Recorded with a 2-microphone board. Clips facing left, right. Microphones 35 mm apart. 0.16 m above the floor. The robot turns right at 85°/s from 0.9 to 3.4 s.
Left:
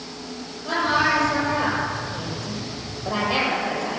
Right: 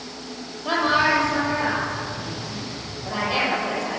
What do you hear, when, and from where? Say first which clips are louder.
0.7 s a woman speaking: right 1 dB; 45° right, 5.5 m; by 4.0 s 170° left, 5.5 m